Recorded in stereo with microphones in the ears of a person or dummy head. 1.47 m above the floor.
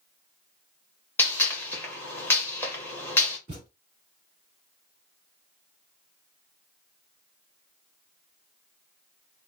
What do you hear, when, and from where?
1.2 s a gunshot: 10° left (ahead or behind), 1.0 m
3.5 s a thud: 20° right (ahead or behind), 1.5 m